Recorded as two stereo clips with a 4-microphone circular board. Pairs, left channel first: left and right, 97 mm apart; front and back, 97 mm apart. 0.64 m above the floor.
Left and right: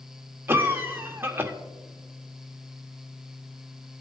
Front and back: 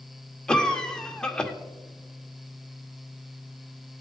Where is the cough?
70° right, 1.2 m.